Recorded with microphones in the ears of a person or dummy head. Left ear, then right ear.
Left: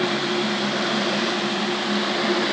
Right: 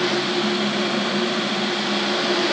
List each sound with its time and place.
Only background noise.